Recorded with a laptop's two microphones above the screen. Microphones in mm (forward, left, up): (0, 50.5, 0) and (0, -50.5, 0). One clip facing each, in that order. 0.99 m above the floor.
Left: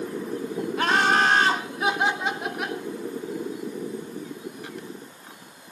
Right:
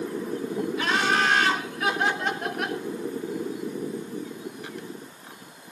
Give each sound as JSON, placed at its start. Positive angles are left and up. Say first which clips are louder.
{"t": 0.8, "sound": "laughter", "louder": "left 4 dB", "side_deg": 55, "distance_m": 1.4}